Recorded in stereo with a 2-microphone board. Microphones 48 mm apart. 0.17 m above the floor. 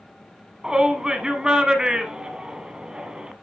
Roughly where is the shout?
Centre.